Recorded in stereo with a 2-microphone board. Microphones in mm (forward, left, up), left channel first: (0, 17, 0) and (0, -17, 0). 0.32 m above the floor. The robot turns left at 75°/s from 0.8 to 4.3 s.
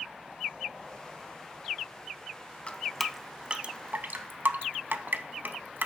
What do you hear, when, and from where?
2.7 s dripping: 30° left (ahead or behind), 0.6 m; by 5.9 s 85° right, 0.6 m